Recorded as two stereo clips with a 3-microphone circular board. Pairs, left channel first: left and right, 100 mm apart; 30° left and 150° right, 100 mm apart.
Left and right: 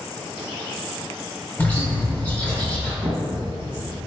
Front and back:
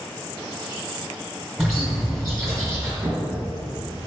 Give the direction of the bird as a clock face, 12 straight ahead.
8 o'clock.